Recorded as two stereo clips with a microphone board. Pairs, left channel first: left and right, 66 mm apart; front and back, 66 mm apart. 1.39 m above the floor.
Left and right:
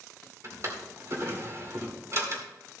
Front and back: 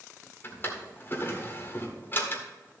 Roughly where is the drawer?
Ahead right.